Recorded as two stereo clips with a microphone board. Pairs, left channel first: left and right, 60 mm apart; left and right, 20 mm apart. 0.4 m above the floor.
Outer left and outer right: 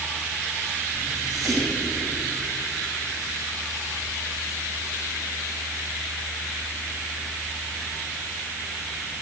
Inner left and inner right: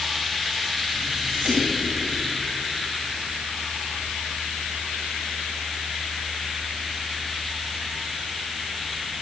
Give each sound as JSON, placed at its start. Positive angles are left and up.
{"t": 0.9, "sound": "whispering", "side_deg": -60, "distance_m": 2.5}